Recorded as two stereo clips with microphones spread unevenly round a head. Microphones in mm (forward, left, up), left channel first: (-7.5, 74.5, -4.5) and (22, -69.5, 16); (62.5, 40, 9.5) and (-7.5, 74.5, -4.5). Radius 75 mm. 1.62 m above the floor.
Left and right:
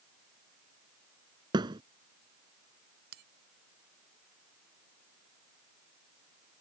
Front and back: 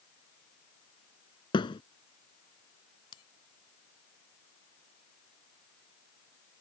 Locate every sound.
1.5 s a thud: 15° right
3.1 s a bell: 65° right